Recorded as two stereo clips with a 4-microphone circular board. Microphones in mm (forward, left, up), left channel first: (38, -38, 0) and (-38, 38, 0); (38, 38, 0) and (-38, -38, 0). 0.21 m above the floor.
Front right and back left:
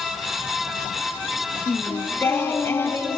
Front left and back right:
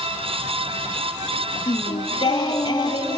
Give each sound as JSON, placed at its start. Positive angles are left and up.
{"t": 1.7, "sound": "singing", "azimuth_deg": 15, "distance_m": 0.7}